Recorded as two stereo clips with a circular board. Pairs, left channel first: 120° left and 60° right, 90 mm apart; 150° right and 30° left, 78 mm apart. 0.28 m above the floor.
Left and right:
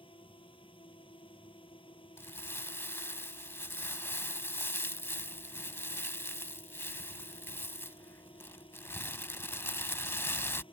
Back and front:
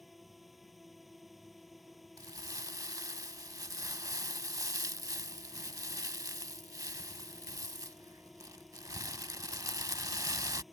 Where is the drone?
120° left.